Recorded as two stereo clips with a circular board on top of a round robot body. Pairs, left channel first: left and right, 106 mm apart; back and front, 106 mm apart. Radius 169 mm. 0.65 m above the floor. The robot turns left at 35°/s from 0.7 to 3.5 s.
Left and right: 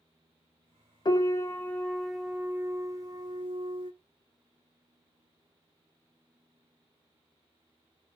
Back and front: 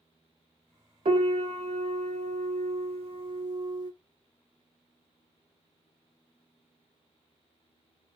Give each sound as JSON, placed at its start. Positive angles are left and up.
{"t": 1.1, "sound": "a piano", "azimuth_deg": 35, "distance_m": 0.5}